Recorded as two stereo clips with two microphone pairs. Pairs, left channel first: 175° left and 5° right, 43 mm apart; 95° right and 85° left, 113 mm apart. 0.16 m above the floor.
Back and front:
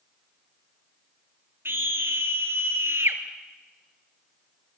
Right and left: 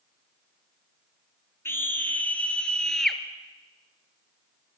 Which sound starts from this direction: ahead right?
A scream, at 1.6 s.